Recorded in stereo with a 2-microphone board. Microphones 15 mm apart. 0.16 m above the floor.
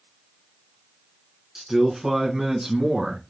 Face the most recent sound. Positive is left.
turn(degrees=-45)  # may be behind; listen again after turning